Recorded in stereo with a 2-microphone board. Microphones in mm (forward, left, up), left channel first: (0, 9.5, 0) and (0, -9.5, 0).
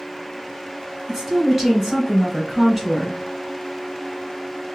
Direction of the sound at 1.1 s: 15° right (ahead or behind).